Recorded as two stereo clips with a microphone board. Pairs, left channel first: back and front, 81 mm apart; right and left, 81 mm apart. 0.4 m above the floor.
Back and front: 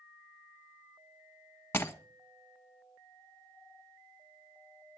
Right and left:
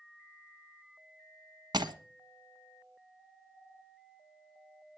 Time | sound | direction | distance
1.7 | breaking glass | 120° left | 1.4 m